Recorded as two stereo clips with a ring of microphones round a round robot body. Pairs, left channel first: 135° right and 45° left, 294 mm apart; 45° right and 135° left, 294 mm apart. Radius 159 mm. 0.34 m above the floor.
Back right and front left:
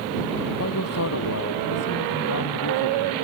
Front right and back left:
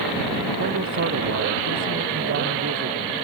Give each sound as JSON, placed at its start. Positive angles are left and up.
{"t": 0.6, "sound": "a man speaking", "azimuth_deg": -175}